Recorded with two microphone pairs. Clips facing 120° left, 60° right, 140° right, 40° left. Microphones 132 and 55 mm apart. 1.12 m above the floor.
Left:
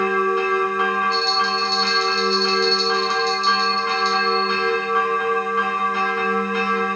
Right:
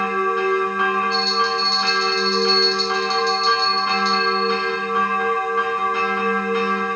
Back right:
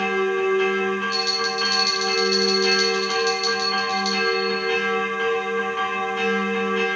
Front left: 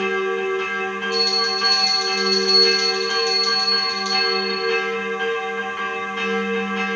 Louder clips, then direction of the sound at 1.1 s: Even, front left 2 dB; 30° right.